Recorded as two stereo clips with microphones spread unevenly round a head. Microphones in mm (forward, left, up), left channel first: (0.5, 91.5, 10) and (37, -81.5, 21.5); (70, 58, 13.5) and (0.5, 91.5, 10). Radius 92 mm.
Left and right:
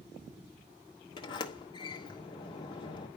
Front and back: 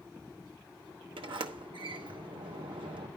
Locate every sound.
1.2 s a sliding door: 170° left, 0.9 m